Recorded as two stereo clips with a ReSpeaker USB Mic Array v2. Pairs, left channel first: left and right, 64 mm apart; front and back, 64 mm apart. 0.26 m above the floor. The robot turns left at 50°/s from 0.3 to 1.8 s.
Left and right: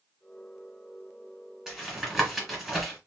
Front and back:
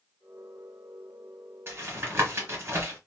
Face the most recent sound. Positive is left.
turn(degrees=180)